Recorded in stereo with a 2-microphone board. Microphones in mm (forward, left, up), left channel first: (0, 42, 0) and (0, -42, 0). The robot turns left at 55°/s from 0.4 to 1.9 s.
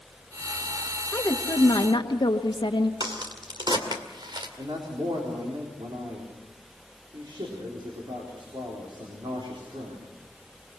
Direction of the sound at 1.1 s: 155° left.